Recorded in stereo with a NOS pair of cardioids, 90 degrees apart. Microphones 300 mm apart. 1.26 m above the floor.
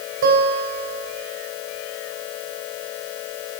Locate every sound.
0.2 s a guitar: 55° right, 4 m